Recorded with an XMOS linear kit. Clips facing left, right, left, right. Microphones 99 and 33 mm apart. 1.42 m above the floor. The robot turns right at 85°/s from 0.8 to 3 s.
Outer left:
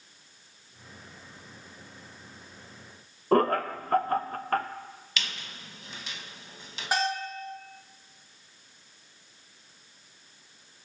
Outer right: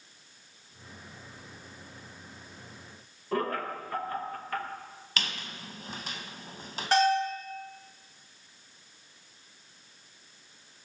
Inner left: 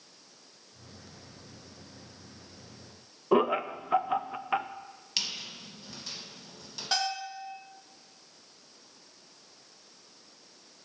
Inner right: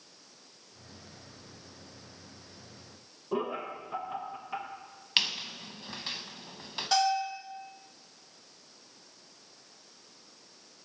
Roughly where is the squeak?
Right.